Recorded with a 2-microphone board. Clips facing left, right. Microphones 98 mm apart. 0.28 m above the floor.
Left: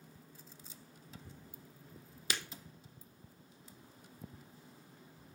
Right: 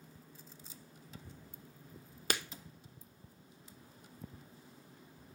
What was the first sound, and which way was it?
Breaking glass, 50° right (ahead or behind).